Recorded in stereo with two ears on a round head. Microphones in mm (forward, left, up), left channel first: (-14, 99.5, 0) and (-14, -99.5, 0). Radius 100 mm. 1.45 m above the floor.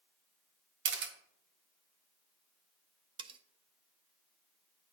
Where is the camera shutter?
60° right (ahead or behind), 1.3 m.